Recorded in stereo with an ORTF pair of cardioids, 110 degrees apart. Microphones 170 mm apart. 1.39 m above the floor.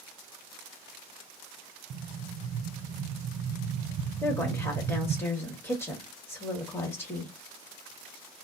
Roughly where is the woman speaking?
Ahead.